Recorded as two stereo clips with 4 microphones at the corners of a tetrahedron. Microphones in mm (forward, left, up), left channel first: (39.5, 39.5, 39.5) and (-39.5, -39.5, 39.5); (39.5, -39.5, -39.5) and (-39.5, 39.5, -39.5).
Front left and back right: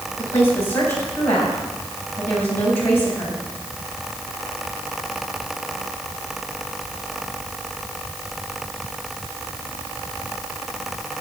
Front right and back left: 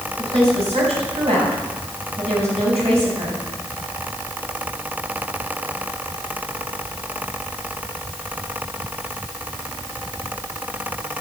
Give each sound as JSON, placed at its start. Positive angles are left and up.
{"t": 0.2, "sound": "a woman speaking", "azimuth_deg": 115, "distance_m": 8.5}